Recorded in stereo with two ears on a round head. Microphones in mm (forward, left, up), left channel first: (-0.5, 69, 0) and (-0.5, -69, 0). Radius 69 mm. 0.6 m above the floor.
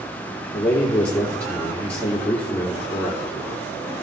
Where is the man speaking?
10° left (ahead or behind), 1.5 m.